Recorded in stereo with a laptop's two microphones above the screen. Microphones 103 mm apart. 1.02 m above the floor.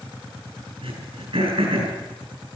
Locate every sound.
0.8 s throat clearing: 70° right (ahead or behind), 5 m